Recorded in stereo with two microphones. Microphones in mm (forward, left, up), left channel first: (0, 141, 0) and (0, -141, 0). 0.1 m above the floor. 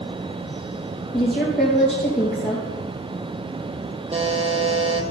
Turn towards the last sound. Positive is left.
turn(degrees=-25)  # may be behind; listen again after turning